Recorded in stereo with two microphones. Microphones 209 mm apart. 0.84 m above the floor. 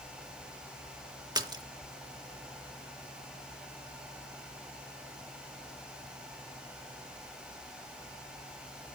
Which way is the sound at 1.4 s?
20° right (ahead or behind).